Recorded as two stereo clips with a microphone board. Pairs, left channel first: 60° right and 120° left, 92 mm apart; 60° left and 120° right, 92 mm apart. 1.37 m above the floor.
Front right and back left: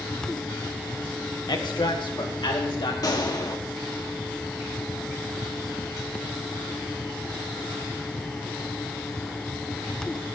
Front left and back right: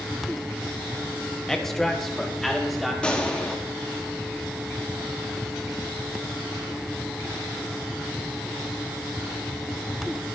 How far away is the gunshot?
About 1.4 m.